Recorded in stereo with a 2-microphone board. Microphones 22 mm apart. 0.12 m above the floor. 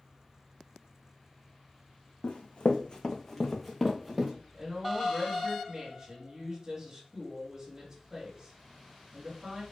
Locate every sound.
2.2 s running footsteps: 70° left (ahead or behind), 0.6 m; by 4.3 s 10° right (ahead or behind), 0.9 m
4.5 s a woman speaking: 35° right (ahead or behind), 1.8 m